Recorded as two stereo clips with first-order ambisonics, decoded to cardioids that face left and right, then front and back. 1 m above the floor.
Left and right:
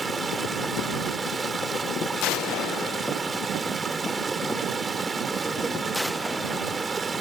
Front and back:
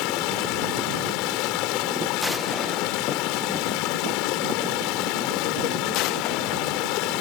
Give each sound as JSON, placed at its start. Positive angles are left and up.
{"t": 0.0, "sound": "running water", "azimuth_deg": -20}